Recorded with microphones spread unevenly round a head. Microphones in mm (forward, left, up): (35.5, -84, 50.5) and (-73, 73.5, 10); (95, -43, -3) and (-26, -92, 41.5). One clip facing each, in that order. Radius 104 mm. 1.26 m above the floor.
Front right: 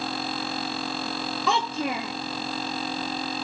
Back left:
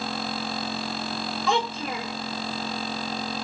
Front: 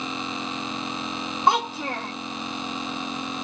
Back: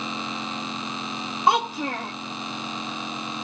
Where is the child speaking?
80° right, 1.5 m.